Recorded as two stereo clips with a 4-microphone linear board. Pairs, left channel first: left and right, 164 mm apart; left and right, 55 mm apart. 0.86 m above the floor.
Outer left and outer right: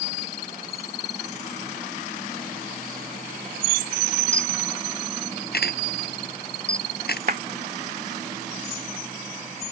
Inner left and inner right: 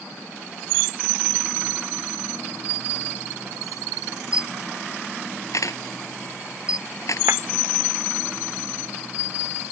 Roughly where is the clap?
Right.